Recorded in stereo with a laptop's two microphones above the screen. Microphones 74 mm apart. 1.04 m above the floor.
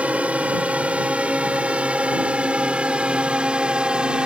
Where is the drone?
20° right (ahead or behind); by 4.3 s 15° right (ahead or behind).